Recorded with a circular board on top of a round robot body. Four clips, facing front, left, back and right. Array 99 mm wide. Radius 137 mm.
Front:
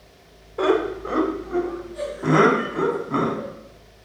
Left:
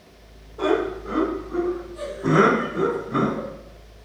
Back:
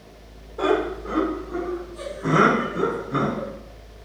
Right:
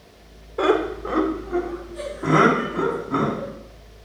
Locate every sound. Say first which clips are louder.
0.6 s laughter: right 2 dB, front 2 dB; 55° right, 2 m; by 3.5 s 35° right, 4.5 m